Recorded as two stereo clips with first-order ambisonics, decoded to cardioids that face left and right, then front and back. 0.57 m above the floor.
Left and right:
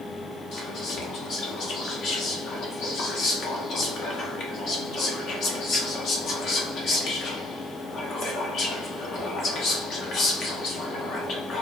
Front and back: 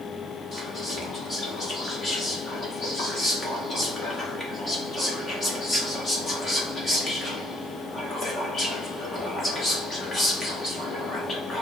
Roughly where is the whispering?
Ahead left.